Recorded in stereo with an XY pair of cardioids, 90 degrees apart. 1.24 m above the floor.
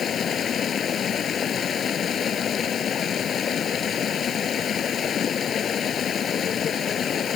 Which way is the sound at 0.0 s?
65° left.